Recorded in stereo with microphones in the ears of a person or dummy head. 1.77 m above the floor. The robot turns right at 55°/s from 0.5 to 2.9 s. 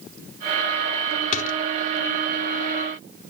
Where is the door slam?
45° left (ahead or behind); by 1.6 s 60° left (ahead or behind).